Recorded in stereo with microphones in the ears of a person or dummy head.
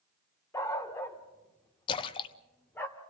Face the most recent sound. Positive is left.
turn(degrees=25)  # may be behind; listen again after turning